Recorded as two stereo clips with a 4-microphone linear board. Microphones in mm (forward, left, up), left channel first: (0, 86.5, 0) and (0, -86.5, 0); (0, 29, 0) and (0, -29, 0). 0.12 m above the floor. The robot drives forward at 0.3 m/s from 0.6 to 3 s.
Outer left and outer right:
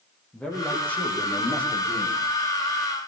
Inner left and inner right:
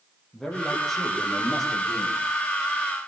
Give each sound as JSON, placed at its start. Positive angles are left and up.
{"t": 0.3, "sound": "a man speaking", "side_deg": 10, "distance_m": 7.0}